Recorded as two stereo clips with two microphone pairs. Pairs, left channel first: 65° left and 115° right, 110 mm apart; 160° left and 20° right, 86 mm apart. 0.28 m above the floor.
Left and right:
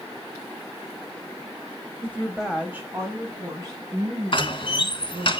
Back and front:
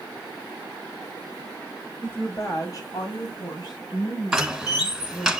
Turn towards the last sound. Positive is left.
turn(degrees=65)